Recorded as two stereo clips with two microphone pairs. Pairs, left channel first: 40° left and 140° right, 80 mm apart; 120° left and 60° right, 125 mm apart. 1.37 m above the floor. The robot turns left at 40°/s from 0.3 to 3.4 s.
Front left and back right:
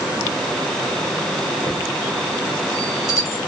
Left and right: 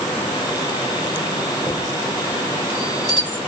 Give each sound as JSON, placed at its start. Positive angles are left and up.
{"t": 1.7, "sound": "a chime", "azimuth_deg": 55, "distance_m": 2.0}